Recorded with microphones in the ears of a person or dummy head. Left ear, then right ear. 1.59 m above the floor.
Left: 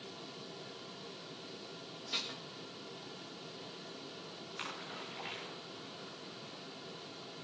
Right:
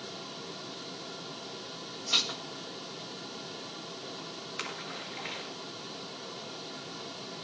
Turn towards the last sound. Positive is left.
turn(degrees=-25)  # may be behind; listen again after turning